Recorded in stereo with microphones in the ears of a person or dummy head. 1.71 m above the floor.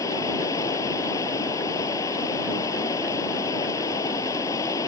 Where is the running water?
20° left (ahead or behind).